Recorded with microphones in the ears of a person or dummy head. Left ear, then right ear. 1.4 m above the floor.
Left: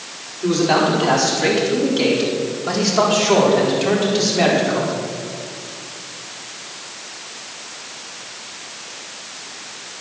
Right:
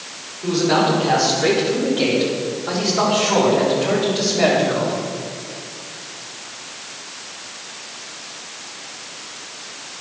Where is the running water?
I don't hear running water.